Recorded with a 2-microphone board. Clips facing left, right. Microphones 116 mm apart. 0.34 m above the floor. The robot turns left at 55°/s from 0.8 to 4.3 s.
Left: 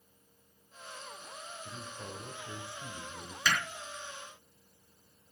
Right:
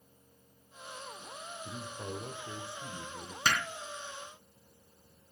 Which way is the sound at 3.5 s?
45° right (ahead or behind).